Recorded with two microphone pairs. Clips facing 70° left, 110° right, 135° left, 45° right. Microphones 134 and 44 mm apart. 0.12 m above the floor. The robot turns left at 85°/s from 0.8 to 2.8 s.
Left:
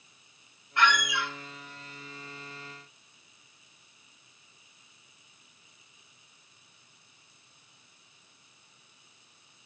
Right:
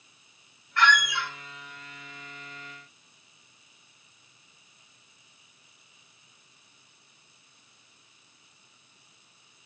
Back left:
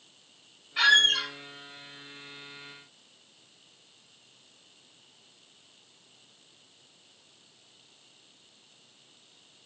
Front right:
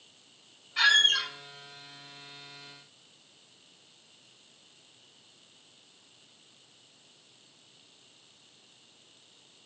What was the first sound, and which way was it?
A squeak, 70° left.